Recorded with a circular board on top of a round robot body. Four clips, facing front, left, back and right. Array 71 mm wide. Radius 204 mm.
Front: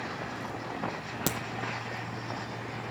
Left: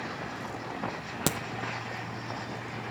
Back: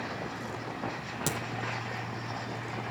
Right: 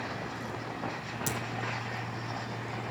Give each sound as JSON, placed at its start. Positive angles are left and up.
{"t": 1.3, "sound": "a crack", "azimuth_deg": 75, "distance_m": 1.0}